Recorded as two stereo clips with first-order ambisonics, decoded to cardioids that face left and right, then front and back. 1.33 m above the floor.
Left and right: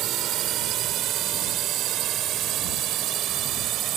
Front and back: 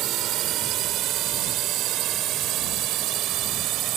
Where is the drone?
135° right.